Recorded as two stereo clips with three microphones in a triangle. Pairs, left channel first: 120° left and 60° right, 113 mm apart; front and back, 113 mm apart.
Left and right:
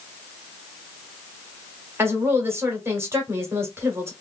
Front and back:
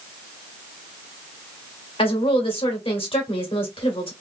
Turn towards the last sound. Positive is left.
turn(degrees=5)